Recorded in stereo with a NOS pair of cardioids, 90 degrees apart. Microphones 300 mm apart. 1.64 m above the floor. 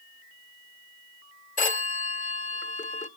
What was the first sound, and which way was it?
A phone ringing, 25° left.